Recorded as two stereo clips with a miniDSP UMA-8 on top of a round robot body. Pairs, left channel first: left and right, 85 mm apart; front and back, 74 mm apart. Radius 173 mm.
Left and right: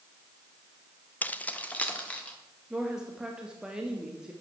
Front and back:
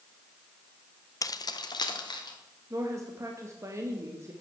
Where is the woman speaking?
170° right, 1.5 m.